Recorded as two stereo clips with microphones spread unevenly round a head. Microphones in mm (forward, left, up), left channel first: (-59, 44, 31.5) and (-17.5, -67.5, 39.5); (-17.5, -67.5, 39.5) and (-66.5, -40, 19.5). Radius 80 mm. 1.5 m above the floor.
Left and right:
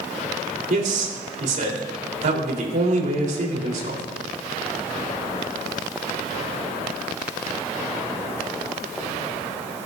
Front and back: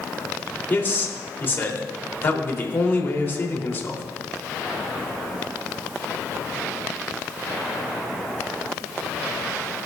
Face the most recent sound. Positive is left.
turn(degrees=-80)